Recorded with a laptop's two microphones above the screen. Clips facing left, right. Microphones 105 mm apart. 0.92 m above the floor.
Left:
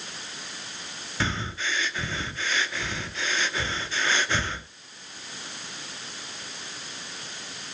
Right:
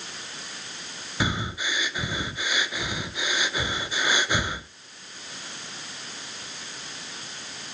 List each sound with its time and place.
1.2 s breathing: 10° right (ahead or behind), 0.6 m